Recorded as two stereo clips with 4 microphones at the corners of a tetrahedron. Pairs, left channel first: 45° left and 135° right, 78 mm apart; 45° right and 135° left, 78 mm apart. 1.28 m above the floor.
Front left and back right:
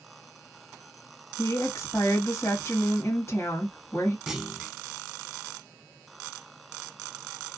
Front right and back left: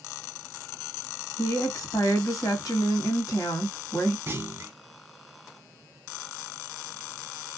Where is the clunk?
140° left, 0.6 m.